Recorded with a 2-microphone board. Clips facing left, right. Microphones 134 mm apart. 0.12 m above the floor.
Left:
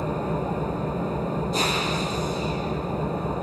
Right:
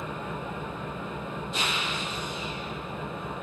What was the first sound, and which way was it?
An engine running, 40° left (ahead or behind).